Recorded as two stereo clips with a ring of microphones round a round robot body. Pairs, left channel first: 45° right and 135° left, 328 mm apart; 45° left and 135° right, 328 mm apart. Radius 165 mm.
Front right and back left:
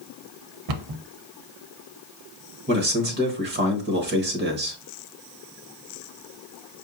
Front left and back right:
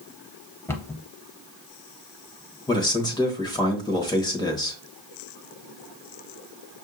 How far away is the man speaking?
About 1.2 m.